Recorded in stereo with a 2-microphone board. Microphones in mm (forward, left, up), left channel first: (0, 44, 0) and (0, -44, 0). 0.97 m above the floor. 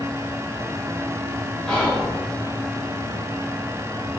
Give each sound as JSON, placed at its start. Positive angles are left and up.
{"t": 1.7, "sound": "whispering", "side_deg": 10, "distance_m": 1.2}